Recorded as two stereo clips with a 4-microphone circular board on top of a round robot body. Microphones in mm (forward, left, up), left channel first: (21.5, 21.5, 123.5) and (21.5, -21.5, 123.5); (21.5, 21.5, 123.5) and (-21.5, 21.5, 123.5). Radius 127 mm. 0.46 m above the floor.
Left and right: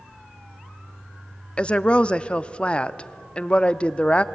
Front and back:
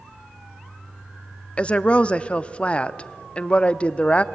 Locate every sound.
1.6 s a woman speaking: 45° left, 0.9 m